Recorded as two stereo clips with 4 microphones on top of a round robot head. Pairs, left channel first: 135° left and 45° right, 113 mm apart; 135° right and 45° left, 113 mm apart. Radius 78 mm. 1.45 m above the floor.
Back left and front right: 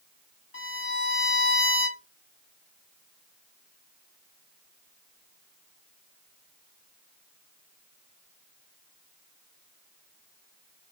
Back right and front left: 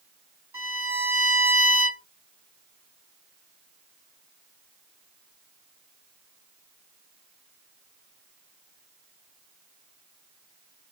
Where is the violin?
115° left, 2.0 m.